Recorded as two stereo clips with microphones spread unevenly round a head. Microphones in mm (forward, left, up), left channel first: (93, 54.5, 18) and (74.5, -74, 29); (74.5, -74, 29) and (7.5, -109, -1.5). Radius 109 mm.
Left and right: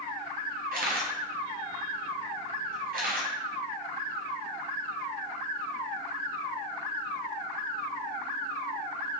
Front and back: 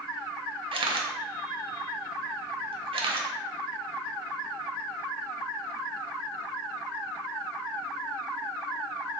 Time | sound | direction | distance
0.7 | a camera shutter | 140° right | 0.5 m